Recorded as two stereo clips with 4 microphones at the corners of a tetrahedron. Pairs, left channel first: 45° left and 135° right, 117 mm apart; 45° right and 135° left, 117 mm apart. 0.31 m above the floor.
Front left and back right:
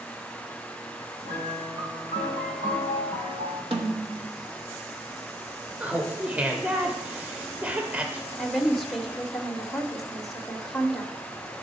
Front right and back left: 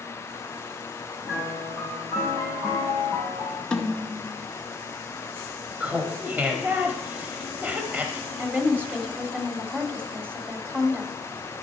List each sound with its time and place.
1.2 s a piano: 165° right, 4 m
3.7 s a snare drum: 125° right, 1.1 m
5.8 s laughter: 175° left, 0.9 m
8.4 s a woman speaking: 130° left, 0.9 m